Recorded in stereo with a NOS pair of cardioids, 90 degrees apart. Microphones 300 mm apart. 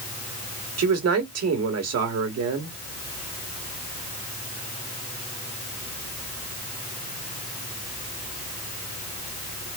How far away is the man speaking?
About 2 m.